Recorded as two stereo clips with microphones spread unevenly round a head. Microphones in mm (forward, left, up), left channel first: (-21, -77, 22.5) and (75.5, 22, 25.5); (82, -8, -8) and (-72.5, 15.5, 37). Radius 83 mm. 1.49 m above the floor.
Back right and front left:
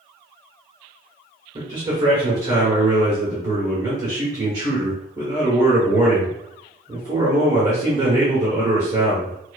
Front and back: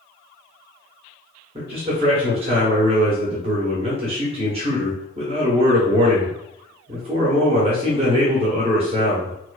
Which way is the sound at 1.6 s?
115° left.